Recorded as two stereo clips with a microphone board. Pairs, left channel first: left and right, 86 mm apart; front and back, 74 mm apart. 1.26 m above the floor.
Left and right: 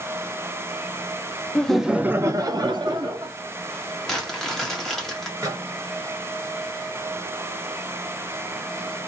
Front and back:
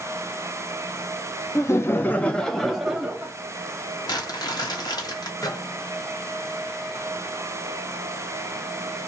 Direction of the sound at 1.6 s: 15° left.